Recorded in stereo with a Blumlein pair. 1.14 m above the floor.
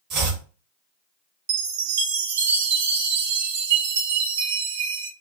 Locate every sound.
0.1 s chopping: 35° right, 1.1 m
1.5 s a chime: 60° right, 0.5 m